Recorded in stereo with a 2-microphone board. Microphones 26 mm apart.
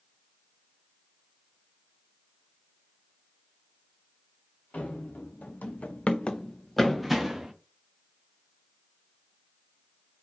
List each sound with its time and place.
4.7 s running footsteps: 75° left (ahead or behind), 1.2 m; by 7.5 s 15° right (ahead or behind), 1.1 m